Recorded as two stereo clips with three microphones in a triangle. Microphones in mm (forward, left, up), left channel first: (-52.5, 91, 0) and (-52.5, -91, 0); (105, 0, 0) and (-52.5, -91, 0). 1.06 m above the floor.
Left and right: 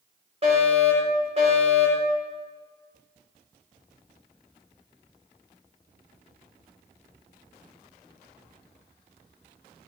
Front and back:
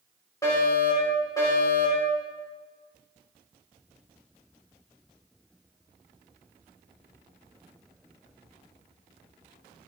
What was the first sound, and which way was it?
A fire alarm, 40° right.